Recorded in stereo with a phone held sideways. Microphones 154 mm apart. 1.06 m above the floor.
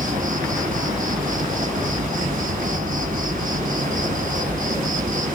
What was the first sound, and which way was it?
An insect, 55° right (ahead or behind).